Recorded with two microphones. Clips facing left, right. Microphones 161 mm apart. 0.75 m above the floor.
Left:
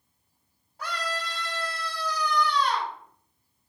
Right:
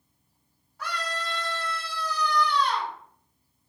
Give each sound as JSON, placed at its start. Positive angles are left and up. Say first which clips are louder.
{"t": 0.8, "sound": "a scream", "louder": "even", "side_deg": 45, "distance_m": 1.4}